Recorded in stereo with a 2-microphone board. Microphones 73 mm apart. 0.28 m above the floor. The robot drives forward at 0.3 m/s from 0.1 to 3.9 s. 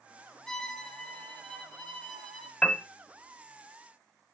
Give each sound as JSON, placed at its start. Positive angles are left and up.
{"t": 0.5, "sound": "a violin", "side_deg": 10, "distance_m": 2.0}
{"t": 2.6, "sound": "a piano", "side_deg": 15, "distance_m": 0.8}